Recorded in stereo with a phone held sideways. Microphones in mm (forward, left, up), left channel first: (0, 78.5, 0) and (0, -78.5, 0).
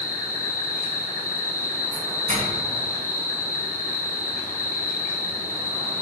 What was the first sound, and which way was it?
An insect, 75° left (ahead or behind).